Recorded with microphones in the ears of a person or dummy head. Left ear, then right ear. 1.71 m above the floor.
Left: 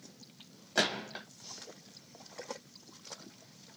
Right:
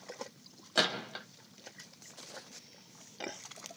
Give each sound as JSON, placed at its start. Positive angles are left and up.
{"t": 0.8, "sound": "a gunshot", "side_deg": -5, "distance_m": 1.2}